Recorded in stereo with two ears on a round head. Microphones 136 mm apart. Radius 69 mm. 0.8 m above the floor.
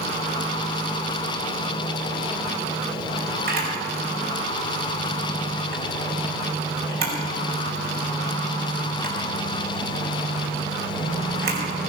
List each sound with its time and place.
3.5 s a camera shutter: 75° right (ahead or behind), 5 m